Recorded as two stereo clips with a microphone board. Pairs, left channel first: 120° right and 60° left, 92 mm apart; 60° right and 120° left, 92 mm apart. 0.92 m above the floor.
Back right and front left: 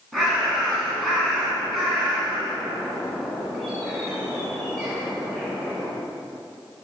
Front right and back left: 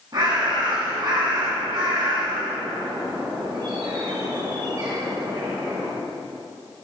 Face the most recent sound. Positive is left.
turn(degrees=150)